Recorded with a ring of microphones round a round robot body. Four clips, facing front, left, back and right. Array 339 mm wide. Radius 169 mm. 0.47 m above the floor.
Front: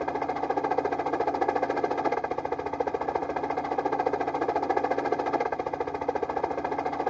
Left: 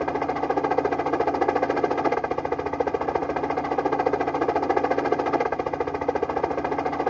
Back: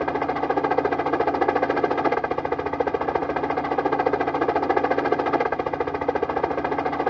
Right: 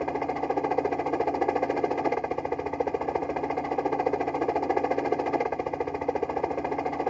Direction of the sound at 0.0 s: 150° left.